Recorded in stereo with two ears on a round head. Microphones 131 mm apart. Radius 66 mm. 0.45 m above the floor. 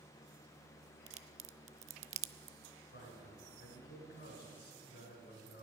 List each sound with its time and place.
1.1 s a crack: 50° right (ahead or behind), 0.6 m
2.9 s a man speaking: 80° left, 5 m